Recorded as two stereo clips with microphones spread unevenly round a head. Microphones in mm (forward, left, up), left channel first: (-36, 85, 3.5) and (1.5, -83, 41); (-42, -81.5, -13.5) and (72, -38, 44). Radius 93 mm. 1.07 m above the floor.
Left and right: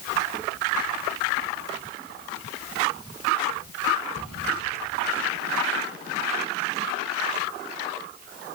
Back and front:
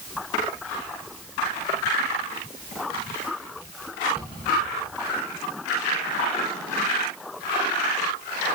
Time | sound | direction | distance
4.2 | a cupboard door | 55° right | 6.5 m